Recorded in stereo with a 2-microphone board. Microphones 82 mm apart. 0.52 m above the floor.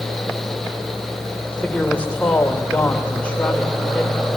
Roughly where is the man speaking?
Centre.